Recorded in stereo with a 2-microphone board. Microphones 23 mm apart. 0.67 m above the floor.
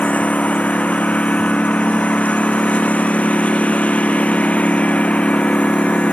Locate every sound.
0.0 s a lawn mower: 85° left; by 6.1 s 70° left (ahead or behind)